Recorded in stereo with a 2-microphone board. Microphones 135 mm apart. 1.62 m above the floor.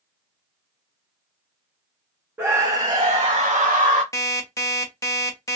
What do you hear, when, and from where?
2.4 s a scream: 15° right (ahead or behind), 0.7 m; by 4.0 s 75° right (ahead or behind), 0.9 m
4.1 s an alarm clock: 25° left (ahead or behind), 1.0 m